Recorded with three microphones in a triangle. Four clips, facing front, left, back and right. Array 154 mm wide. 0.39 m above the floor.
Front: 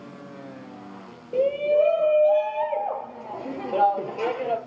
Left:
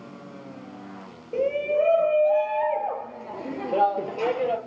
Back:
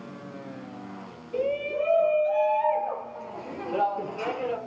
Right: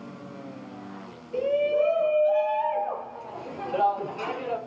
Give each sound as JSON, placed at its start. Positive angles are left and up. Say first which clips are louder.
{"t": 1.3, "sound": "a shout", "louder": "even, front 7 dB", "azimuth_deg": 40, "distance_m": 5.5}